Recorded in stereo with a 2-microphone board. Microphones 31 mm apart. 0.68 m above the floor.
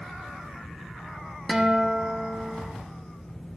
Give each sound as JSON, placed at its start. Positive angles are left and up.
{"t": 1.5, "sound": "a guitar", "side_deg": -5, "distance_m": 1.1}